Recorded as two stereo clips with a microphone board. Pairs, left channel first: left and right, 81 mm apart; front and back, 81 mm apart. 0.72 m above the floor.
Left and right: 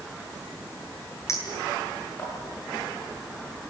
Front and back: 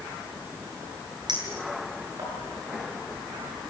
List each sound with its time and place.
1.3 s a clink: 145° left, 9 m